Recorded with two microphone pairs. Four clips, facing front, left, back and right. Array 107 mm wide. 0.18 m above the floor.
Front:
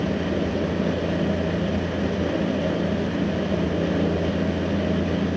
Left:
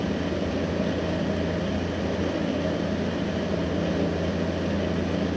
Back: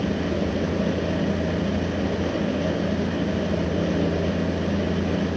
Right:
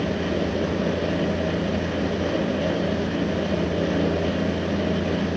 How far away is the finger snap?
No finger snap in this recording.